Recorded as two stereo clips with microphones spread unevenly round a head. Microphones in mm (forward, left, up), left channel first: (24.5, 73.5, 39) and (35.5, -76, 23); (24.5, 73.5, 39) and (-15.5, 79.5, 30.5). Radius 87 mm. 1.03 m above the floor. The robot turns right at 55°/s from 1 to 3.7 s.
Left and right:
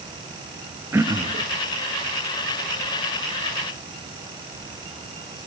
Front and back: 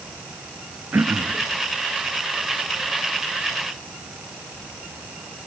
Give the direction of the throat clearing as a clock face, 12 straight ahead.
5 o'clock.